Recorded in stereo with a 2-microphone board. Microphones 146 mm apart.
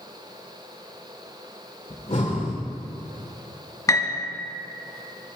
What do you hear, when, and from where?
1.9 s breathing: 50° left (ahead or behind), 1.8 m
3.9 s a piano: 25° left (ahead or behind), 1.1 m